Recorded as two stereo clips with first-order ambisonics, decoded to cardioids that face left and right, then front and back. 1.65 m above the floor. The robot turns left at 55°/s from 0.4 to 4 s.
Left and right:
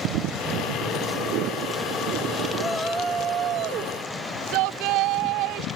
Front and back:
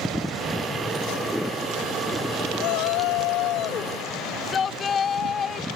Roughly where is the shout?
Ahead.